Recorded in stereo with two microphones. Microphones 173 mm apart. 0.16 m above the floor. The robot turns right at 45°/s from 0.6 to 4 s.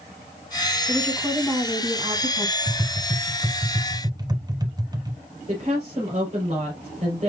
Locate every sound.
0.9 s a woman speaking: 10° right (ahead or behind), 1.1 m; by 2.6 s 20° right (ahead or behind), 1.1 m
2.7 s tapping: 5° right (ahead or behind), 1.0 m; by 5.2 s 25° right (ahead or behind), 1.0 m
5.5 s a woman speaking: 40° right (ahead or behind), 3 m